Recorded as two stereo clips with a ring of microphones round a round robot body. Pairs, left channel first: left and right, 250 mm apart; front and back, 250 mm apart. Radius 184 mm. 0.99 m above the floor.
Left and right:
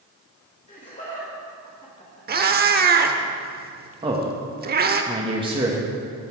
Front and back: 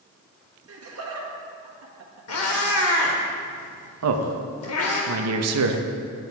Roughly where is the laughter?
Behind left.